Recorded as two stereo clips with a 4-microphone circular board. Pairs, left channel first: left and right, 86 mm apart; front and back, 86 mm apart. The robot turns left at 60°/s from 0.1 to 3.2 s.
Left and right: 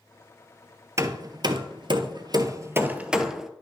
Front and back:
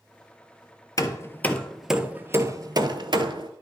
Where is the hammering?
40° right, 0.6 m; by 3.5 s 175° right, 0.6 m.